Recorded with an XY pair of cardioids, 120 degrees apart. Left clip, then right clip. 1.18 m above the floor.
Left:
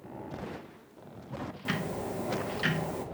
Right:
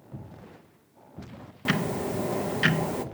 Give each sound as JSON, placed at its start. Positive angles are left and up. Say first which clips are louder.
{"t": 1.6, "sound": "ticking", "louder": "right 7 dB", "azimuth_deg": -40, "distance_m": 0.7}